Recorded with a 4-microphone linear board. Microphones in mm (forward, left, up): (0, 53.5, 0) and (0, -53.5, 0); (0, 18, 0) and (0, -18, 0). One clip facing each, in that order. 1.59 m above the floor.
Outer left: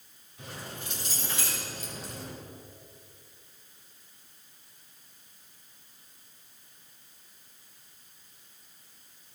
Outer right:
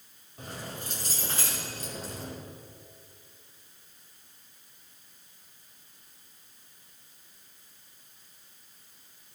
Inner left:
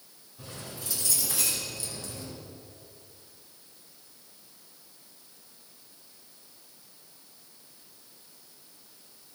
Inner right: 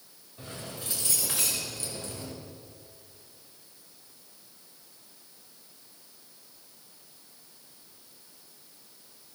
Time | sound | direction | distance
0.4 | keys jangling | 45° right (ahead or behind) | 6 m